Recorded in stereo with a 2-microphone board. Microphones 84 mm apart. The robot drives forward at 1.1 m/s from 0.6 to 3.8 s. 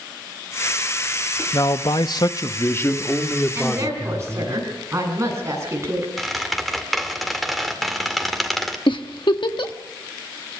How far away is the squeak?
About 2 m.